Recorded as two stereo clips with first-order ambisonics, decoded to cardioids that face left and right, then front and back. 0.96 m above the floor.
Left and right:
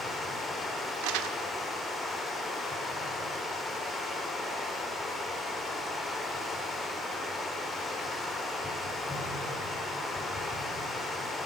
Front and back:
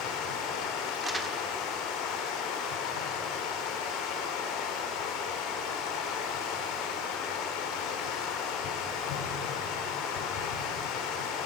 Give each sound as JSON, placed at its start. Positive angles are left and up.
{"t": 0.0, "sound": "running water", "azimuth_deg": 10, "distance_m": 3.5}
{"t": 1.0, "sound": "crumpling", "azimuth_deg": -105, "distance_m": 1.3}